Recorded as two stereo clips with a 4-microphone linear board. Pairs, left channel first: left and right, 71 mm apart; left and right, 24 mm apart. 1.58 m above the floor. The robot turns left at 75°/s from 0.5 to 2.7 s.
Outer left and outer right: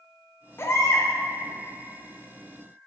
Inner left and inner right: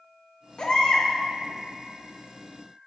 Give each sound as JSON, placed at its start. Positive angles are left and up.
{"t": 0.6, "sound": "a baby crying", "azimuth_deg": 120, "distance_m": 0.5}